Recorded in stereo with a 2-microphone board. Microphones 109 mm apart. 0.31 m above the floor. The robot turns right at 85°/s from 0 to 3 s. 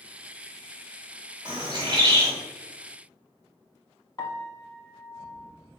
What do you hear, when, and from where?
1.4 s a bird: 45° right (ahead or behind), 1.5 m; by 2.3 s 25° right (ahead or behind), 1.5 m
4.2 s a piano: 35° left (ahead or behind), 0.6 m